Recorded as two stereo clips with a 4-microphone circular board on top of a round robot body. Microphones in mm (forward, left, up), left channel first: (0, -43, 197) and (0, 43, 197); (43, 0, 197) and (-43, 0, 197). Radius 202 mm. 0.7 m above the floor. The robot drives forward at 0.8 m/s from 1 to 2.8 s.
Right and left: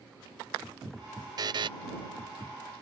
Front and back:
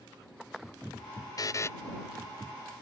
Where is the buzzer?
45° left; by 1.7 s 60° left.